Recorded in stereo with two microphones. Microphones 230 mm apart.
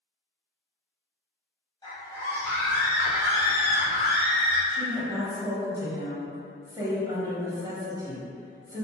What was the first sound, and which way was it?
A scream, 25° left (ahead or behind).